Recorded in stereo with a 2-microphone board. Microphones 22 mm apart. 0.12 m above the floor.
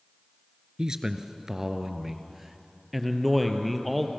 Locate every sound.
0.8 s a man speaking: 30° right (ahead or behind), 1.5 m; by 4.1 s 10° left (ahead or behind), 2.5 m